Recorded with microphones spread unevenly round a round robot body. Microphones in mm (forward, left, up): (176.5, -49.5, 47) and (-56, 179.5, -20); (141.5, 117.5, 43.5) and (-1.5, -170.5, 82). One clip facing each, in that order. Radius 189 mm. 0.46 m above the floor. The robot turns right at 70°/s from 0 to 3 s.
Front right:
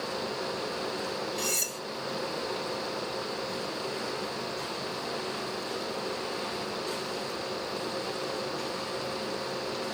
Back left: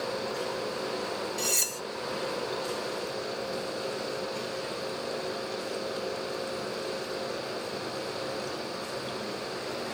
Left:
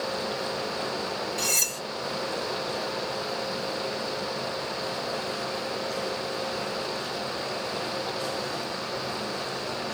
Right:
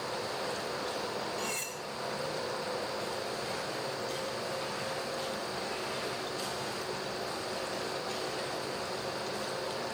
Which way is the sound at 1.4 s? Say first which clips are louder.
Even, left 5 dB; 55° left.